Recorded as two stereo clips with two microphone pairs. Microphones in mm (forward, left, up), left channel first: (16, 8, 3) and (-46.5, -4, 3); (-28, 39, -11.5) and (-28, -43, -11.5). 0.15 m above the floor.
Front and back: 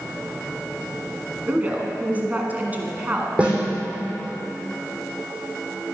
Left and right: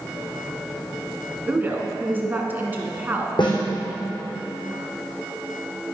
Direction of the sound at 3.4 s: 120° left.